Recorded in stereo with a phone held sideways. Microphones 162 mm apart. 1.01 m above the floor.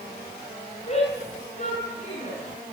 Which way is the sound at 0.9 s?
40° left (ahead or behind).